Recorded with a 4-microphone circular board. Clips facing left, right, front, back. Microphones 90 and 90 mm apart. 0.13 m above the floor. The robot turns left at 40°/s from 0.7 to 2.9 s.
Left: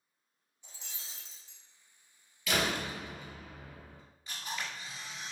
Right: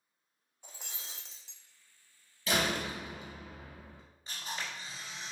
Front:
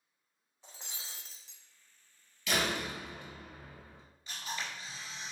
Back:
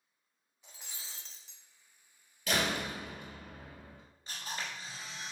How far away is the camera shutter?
About 1.8 m.